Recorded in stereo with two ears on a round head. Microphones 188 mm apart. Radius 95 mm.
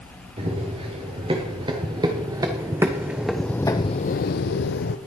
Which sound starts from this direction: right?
Running footsteps, at 0.4 s.